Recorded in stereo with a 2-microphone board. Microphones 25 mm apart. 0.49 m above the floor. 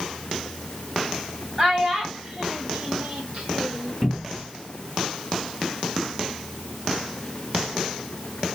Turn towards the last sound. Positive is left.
turn(degrees=-15)  # may be behind; listen again after turning